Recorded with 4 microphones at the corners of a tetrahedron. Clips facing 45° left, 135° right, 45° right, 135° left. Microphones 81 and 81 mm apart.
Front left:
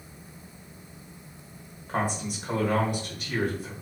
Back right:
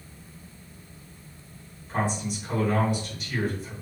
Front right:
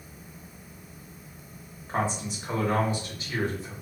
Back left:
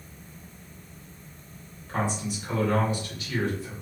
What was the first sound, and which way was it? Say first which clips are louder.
A man speaking: back right 1 dB, even; 15° left.